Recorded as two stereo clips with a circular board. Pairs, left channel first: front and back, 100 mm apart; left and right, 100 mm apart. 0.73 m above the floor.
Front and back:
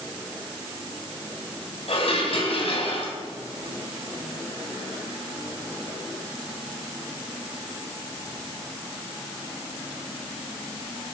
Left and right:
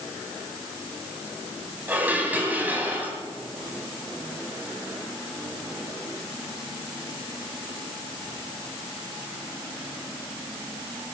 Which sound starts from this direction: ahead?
Dishes clattering, at 1.9 s.